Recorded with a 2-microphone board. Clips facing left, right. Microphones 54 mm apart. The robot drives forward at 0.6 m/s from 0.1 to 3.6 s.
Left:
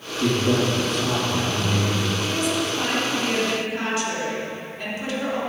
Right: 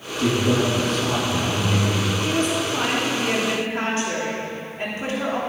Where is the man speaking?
Centre (ahead or behind), 2.5 m.